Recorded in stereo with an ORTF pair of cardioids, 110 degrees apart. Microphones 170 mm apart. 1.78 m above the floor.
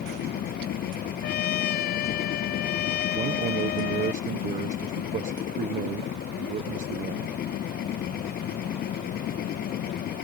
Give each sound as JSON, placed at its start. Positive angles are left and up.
{"t": 0.0, "sound": "a machine running", "azimuth_deg": 65}
{"t": 1.2, "sound": "a trumpet", "azimuth_deg": 70}
{"t": 3.1, "sound": "a man speaking", "azimuth_deg": -50}